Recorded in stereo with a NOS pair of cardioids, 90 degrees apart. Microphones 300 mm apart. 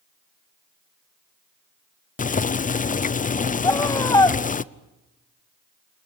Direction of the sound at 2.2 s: 25° left.